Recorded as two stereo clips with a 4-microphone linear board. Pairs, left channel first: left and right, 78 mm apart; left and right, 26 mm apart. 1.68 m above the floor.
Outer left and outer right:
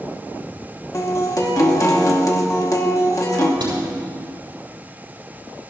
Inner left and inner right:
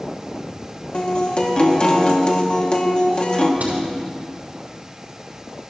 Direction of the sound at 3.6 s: 75° right (ahead or behind).